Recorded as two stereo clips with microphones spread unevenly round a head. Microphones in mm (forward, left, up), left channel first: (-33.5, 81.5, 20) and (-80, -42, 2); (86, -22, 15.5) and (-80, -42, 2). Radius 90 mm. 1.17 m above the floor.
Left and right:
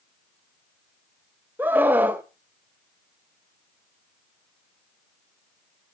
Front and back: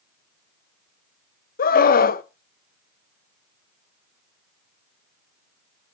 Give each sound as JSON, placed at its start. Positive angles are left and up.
{"t": 1.6, "sound": "a scream", "azimuth_deg": -30, "distance_m": 0.9}